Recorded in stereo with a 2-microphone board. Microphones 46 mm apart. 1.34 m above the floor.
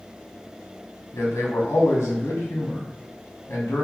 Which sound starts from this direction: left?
A man speaking, at 1.1 s.